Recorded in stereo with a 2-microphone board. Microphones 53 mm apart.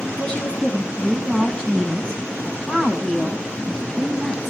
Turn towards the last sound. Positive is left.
turn(degrees=10)  # may be behind; listen again after turning